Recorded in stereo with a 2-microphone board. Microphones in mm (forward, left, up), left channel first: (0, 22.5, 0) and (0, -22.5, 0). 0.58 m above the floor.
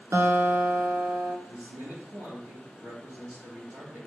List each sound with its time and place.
0.1 s a guitar: 75° right (ahead or behind), 1.5 m
1.5 s a man speaking: 70° right (ahead or behind), 4 m